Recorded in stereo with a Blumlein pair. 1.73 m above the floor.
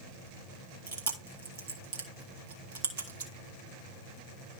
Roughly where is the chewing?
Ahead right.